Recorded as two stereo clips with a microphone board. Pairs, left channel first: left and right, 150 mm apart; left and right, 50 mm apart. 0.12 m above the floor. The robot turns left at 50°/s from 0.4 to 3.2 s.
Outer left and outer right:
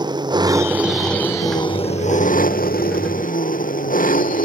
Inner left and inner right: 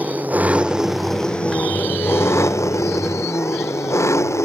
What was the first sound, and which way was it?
An engine running, 150° right.